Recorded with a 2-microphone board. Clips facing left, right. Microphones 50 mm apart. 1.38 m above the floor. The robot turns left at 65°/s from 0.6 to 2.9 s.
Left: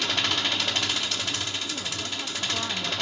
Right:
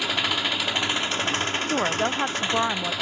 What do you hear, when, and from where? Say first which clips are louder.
0.0 s an engine running: right 2 dB; 15° right, 1.1 m; by 3.0 s 165° right, 1.1 m
1.7 s a woman speaking: right 10 dB; 70° right, 0.5 m; by 2.9 s 150° right, 0.5 m